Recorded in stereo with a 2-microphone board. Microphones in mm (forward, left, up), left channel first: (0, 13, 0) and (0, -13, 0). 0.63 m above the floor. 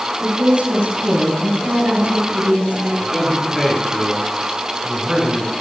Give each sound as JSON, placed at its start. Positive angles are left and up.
{"t": 0.2, "sound": "a woman speaking", "side_deg": -55, "distance_m": 7.0}
{"t": 3.0, "sound": "a man speaking", "side_deg": 5, "distance_m": 5.0}